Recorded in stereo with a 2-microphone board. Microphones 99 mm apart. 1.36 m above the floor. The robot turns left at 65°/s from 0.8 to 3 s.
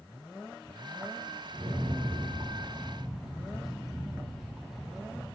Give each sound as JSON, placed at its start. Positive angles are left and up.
{"t": 1.5, "sound": "a rattle", "azimuth_deg": -80, "distance_m": 1.1}